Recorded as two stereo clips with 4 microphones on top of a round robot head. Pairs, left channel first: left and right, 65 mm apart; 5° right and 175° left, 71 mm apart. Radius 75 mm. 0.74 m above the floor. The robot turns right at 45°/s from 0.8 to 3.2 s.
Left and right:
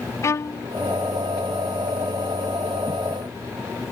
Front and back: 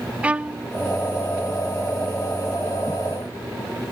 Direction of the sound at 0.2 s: 110° left.